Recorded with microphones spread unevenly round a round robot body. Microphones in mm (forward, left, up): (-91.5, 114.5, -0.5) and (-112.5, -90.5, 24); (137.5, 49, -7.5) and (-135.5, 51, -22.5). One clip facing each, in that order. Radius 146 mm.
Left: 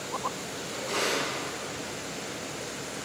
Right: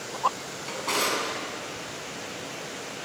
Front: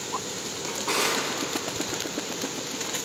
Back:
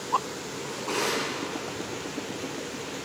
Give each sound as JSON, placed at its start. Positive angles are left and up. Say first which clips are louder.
{"t": 0.7, "sound": "a drawer", "louder": "right 1 dB, front 1 dB", "azimuth_deg": -65, "distance_m": 5.5}